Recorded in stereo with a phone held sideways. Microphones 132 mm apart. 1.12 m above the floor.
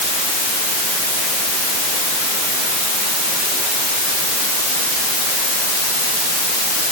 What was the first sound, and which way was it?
Only background noise.